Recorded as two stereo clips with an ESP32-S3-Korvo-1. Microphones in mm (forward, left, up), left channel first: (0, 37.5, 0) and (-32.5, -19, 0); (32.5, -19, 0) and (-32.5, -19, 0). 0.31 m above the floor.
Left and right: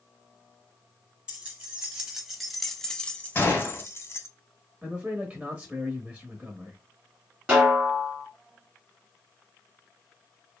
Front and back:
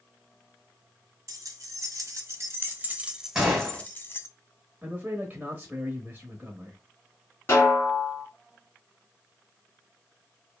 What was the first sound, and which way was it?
Keys jangling, 165° left.